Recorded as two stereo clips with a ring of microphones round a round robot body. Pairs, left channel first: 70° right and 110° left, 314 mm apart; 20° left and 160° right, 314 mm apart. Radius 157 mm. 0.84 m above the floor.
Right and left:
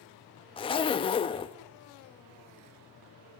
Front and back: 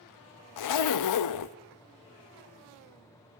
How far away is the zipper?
About 0.8 m.